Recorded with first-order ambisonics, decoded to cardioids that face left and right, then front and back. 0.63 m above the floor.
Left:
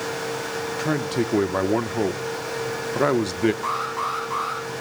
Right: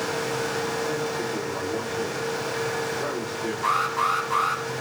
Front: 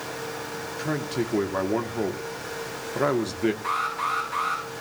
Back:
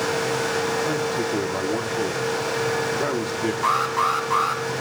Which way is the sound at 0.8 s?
85° left.